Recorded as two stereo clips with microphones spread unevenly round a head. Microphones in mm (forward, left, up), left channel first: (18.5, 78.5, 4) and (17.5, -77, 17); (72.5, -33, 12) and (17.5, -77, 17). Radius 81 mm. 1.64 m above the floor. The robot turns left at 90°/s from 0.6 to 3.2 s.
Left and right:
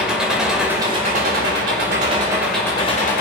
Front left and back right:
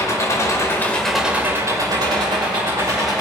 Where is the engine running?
5° right, 4.5 m; by 3.2 s 120° left, 4.5 m.